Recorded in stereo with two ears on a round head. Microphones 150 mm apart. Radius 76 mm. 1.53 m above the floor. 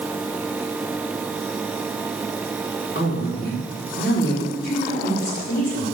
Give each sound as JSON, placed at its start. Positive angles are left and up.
{"t": 3.0, "sound": "a woman speaking", "side_deg": 65, "distance_m": 5.0}